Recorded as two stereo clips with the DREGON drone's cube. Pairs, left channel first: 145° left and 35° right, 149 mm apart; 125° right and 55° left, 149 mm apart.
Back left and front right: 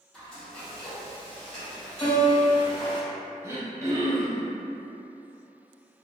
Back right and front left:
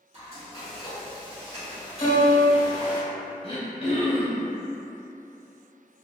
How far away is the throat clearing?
About 0.7 m.